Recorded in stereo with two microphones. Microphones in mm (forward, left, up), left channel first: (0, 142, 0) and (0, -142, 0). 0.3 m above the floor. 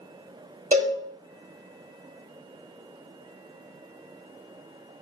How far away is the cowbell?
About 0.8 m.